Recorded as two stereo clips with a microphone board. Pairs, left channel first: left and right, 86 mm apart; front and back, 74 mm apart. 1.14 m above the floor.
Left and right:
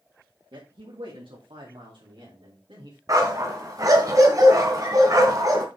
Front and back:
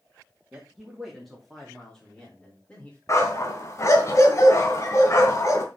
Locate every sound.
0.5 s a man speaking: 105° right, 2.5 m; by 3.0 s 65° right, 4 m
3.1 s a dog barking: 45° right, 2.5 m